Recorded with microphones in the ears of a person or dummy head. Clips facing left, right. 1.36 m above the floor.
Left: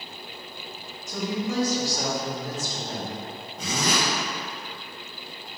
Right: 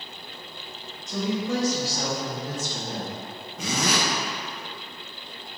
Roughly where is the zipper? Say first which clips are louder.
Right 1 dB; right.